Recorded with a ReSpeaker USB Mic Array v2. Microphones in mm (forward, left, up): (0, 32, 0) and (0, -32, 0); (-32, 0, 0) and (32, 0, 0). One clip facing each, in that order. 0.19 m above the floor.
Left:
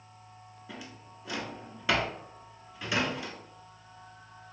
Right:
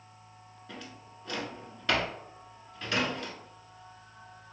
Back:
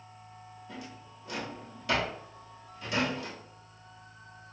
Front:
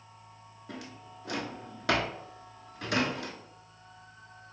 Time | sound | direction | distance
0.7 | a drawer | 10° left | 0.7 m